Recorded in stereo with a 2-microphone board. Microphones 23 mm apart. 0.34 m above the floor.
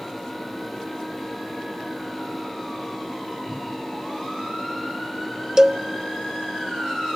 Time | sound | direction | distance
3.5 | a whoosh | 25° right (ahead or behind) | 7.5 m
5.6 | a cowbell | 30° right (ahead or behind) | 0.6 m